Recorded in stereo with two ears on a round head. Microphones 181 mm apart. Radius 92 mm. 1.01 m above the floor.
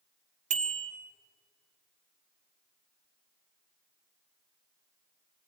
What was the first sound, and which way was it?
A bicycle bell, 35° right (ahead or behind).